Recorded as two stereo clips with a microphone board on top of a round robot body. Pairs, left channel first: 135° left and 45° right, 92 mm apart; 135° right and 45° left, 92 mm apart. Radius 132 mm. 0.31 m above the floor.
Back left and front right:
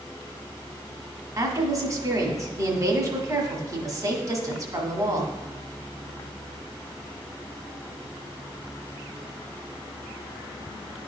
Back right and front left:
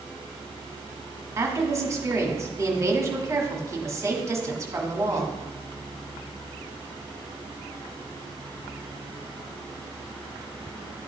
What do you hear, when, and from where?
1.4 s a woman speaking: 5° right, 1.3 m